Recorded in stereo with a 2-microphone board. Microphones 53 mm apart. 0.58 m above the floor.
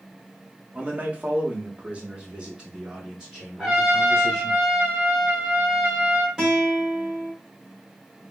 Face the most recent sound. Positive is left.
turn(degrees=-5)  # may be behind; listen again after turning